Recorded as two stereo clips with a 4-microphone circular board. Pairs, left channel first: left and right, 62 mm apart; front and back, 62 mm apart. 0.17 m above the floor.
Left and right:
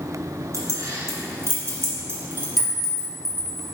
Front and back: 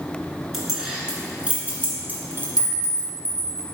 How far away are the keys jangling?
About 1.7 m.